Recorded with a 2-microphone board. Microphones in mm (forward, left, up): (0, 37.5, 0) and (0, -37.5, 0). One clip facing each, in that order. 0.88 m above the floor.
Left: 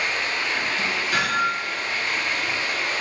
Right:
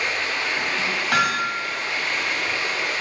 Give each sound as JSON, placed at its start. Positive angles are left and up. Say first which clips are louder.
{"t": 0.0, "sound": "running water", "louder": "even", "side_deg": -85, "distance_m": 2.5}
{"t": 1.1, "sound": "hammering", "louder": "right 2 dB", "side_deg": -70, "distance_m": 1.9}